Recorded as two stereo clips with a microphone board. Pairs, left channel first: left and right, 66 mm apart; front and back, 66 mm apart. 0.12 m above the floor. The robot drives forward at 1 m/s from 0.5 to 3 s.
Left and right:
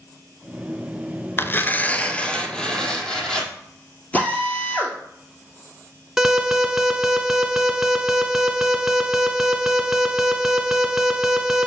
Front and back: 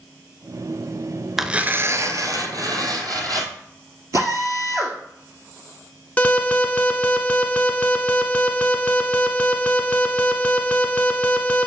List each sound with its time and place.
1.4 s tearing paper: 95° left, 0.6 m; by 3.5 s 170° left, 1.7 m
4.1 s a drill: 155° left, 1.8 m
6.2 s an alarm: 15° right, 0.9 m